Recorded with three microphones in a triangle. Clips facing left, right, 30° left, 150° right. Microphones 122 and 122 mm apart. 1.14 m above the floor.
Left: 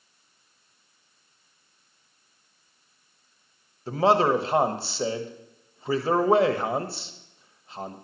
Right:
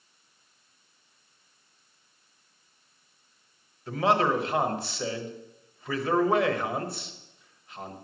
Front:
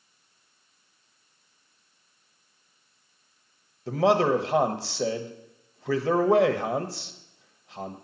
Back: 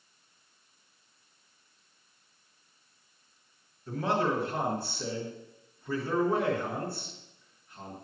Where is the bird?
I don't hear a bird.